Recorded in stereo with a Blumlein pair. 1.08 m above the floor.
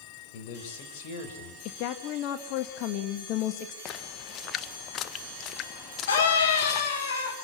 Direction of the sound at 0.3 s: 50° left.